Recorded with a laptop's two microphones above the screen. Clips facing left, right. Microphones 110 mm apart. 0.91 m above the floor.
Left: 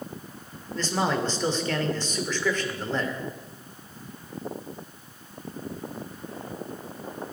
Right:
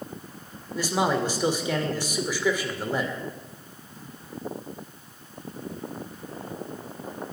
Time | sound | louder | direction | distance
0.8 | a man speaking | right 2 dB | 10° right (ahead or behind) | 2.5 m